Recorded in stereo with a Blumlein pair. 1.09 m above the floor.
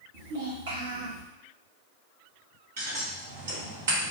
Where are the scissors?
60° right, 1.8 m.